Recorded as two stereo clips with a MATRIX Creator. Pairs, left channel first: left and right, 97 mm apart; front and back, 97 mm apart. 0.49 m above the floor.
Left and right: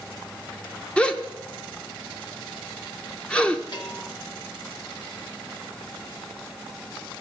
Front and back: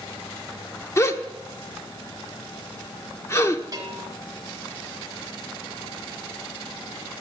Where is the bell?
130° left, 2 m.